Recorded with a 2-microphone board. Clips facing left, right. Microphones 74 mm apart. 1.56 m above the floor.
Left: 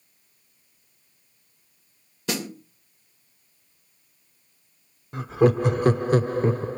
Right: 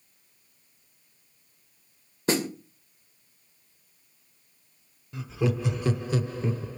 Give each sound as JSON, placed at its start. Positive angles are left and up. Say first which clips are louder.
{"t": 2.3, "sound": "a snare drum", "louder": "right 4 dB", "side_deg": -35, "distance_m": 2.0}
{"t": 5.1, "sound": "laughter", "louder": "left 9 dB", "side_deg": 45, "distance_m": 0.7}